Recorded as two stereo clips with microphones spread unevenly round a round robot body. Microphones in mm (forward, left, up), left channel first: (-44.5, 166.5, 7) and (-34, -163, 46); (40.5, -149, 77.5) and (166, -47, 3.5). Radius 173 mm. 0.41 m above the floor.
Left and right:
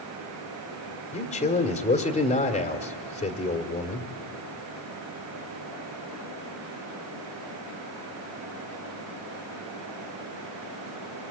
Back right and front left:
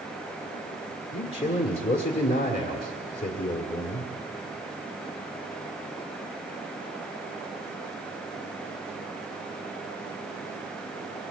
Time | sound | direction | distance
1.1 | a man speaking | 145° left | 1.5 m